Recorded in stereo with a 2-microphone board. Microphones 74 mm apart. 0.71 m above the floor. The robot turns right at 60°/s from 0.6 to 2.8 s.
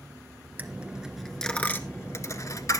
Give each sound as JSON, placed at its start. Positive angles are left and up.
{"t": 0.6, "sound": "a dropped coin", "side_deg": -25, "distance_m": 0.9}